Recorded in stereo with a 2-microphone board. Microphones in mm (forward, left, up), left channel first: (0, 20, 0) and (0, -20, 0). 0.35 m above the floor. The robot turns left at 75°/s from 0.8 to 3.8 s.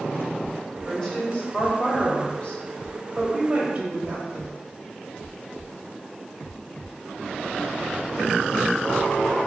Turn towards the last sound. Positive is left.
turn(degrees=-50)